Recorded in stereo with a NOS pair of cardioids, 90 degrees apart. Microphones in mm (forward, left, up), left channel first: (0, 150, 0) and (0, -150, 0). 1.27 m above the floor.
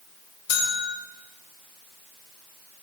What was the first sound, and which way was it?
A bell, 65° left.